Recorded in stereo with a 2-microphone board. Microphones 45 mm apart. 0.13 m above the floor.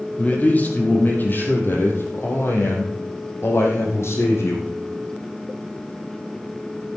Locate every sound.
0.2 s a man speaking: 35° left (ahead or behind), 3.5 m; by 4.7 s 75° left (ahead or behind), 5.5 m